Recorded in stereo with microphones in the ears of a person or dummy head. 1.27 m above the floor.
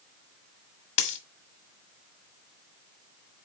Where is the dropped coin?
35° left (ahead or behind), 1.2 m.